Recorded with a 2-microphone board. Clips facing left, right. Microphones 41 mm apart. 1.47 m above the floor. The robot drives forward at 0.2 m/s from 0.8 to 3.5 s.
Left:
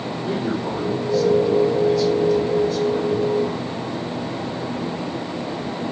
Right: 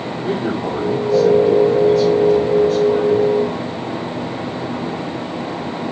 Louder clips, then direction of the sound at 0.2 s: Right 4 dB; 65° right (ahead or behind).